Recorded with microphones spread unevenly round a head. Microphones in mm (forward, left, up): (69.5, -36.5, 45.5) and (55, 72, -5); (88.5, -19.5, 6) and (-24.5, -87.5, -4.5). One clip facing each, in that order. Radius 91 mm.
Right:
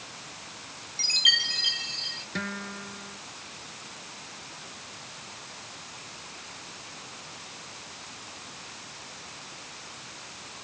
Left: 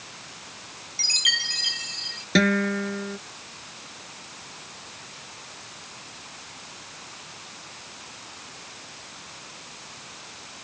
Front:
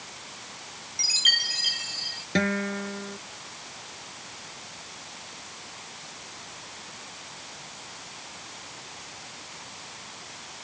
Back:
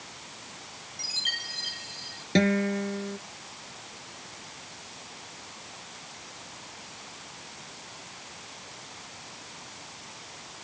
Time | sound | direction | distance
1.0 | a chime | 50° left | ?
2.4 | a guitar | 140° left | ?